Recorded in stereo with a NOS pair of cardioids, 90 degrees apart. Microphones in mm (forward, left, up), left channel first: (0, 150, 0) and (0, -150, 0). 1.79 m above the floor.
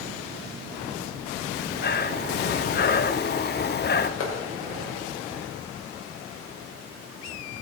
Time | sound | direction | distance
1.5 | breathing | 35° left | 1.3 m
4.2 | a clap | 50° left | 6 m